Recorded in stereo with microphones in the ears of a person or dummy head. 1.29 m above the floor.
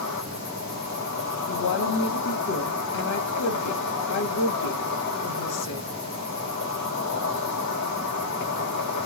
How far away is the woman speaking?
About 1.1 m.